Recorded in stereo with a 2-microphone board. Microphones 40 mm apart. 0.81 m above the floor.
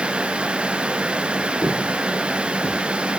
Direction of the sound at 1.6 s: 70° right (ahead or behind).